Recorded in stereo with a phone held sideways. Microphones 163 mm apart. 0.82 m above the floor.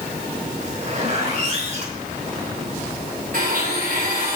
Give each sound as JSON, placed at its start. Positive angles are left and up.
{"t": 0.6, "sound": "a zipper", "side_deg": -45, "distance_m": 5.0}
{"t": 3.3, "sound": "a blender", "side_deg": -55, "distance_m": 4.0}